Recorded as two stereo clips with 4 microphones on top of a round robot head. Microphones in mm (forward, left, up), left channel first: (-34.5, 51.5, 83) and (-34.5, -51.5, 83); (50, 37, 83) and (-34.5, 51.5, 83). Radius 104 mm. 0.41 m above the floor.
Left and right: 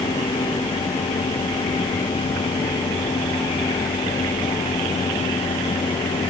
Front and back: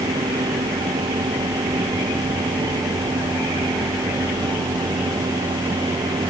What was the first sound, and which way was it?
Only background noise.